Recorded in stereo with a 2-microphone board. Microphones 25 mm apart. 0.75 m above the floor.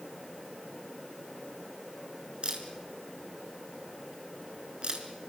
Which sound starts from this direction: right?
A camera shutter, at 2.4 s.